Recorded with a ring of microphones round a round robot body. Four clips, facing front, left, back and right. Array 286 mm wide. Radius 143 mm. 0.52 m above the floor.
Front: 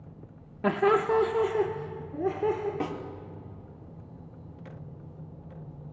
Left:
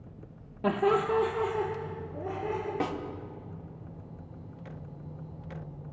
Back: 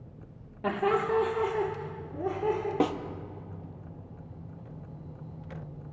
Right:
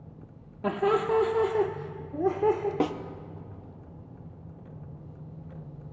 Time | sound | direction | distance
0.6 | laughter | 10° left | 0.7 m
2.8 | a snare drum | 140° right | 0.8 m